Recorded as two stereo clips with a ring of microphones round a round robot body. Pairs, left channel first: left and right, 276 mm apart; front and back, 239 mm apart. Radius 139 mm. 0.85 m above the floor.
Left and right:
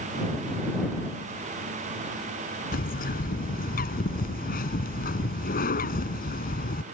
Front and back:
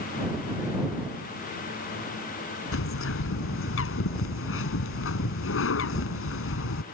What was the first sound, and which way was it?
A bird, 30° left.